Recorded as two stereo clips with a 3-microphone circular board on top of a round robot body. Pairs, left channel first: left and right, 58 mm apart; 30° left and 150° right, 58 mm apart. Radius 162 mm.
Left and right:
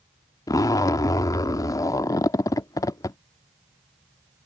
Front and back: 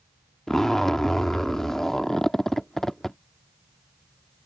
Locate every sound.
0.5 s a zipper: 115° left